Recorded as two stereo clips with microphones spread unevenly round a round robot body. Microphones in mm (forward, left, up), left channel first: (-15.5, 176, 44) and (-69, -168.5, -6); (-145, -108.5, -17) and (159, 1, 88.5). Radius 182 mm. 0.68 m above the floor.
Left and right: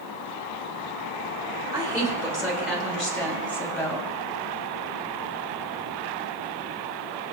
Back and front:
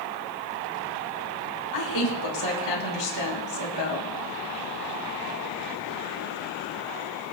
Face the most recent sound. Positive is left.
turn(degrees=165)